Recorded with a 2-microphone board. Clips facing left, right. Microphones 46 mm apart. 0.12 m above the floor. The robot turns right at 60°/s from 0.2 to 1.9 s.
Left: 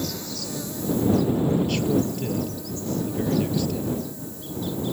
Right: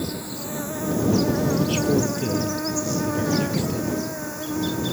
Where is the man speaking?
Centre (ahead or behind); by 4.0 s 15° right (ahead or behind).